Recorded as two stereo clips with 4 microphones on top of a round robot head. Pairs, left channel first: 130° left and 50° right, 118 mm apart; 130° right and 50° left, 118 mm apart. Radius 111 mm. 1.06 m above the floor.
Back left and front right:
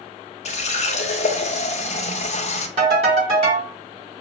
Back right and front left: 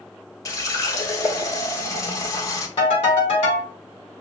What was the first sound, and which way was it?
A running tap, 165° left.